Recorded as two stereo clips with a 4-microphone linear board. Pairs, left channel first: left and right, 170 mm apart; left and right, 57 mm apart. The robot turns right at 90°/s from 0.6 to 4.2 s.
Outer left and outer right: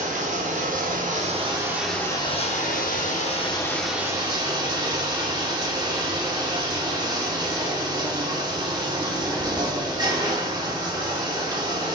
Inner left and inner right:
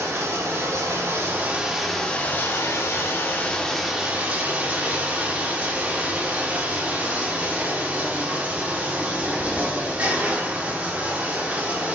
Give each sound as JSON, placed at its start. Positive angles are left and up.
{"t": 0.0, "sound": "running water", "azimuth_deg": -115, "distance_m": 0.7}